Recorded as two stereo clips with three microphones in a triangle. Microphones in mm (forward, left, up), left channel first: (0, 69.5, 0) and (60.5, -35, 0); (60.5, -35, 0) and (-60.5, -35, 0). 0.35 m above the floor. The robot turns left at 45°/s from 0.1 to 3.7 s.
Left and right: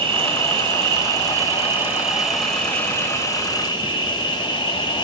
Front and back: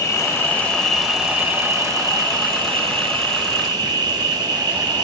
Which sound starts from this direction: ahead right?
An insect, at 0.0 s.